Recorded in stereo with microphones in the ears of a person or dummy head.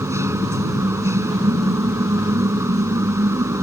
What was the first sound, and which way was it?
A machine running, 15° right (ahead or behind).